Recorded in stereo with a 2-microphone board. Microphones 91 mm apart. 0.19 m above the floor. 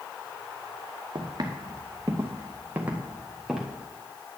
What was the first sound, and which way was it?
Footsteps, 50° right (ahead or behind).